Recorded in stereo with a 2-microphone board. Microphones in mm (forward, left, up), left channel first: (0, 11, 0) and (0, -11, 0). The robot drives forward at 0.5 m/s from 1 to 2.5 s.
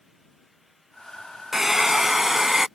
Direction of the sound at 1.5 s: 15° right (ahead or behind).